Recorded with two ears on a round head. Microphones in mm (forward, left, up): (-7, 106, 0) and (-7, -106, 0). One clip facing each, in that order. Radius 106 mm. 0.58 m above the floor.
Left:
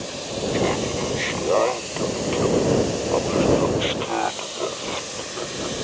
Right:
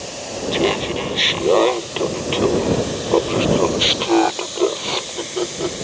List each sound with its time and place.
0.5 s laughter: 50° right (ahead or behind); by 5.8 s 60° right (ahead or behind)